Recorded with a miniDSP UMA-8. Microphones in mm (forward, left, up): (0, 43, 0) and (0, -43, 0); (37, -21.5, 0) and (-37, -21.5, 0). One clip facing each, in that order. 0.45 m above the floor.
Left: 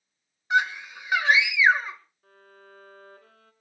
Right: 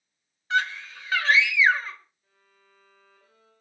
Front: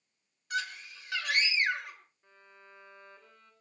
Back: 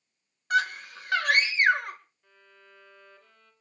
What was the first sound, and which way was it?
A scream, 160° left.